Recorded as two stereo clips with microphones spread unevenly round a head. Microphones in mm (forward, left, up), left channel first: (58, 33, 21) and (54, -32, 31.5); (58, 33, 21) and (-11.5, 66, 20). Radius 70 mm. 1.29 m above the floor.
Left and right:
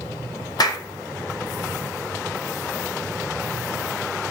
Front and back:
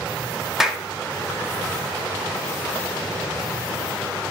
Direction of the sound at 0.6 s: 70° left.